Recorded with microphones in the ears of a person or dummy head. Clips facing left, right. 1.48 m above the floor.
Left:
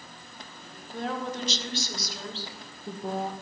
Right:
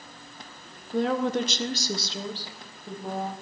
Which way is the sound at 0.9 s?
65° right (ahead or behind).